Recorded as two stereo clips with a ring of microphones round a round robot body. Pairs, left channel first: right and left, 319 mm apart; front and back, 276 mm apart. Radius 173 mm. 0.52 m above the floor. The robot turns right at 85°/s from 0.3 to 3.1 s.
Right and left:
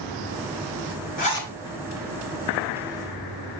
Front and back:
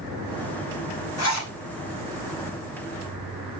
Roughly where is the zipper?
Ahead right.